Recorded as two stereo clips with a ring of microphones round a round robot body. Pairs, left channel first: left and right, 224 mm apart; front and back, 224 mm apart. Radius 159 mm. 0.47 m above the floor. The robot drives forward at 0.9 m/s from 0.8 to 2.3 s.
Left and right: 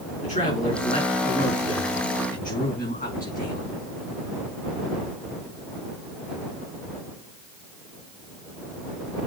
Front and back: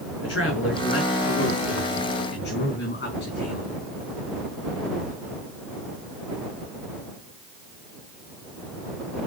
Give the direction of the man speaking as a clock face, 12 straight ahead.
11 o'clock.